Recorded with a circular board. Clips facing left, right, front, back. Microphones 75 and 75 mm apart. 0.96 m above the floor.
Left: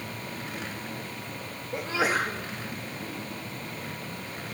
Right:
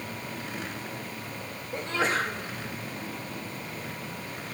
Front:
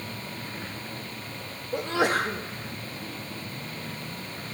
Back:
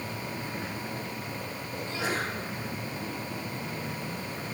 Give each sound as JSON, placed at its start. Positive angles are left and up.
{"t": 1.7, "sound": "a sneeze", "azimuth_deg": 5, "distance_m": 2.0}